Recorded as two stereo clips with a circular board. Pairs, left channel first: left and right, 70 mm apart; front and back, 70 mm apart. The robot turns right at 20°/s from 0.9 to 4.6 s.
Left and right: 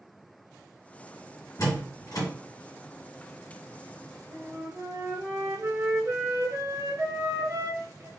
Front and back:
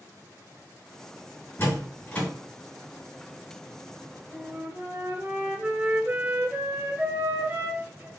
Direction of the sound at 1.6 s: 55° left.